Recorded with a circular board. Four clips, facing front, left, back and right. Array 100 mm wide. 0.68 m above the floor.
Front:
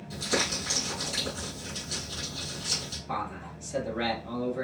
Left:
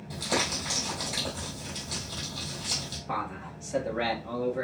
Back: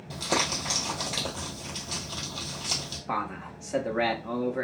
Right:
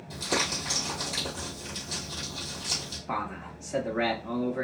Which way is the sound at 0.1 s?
170° left.